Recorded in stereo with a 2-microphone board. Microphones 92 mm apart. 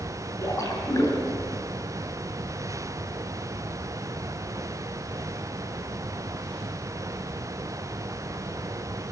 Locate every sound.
0.4 s a splash: 35° left (ahead or behind), 6 m